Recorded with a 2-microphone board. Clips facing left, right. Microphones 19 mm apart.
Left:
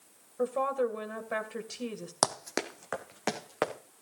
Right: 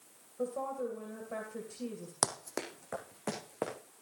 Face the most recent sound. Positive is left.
turn(degrees=60)  # may be behind; listen again after turning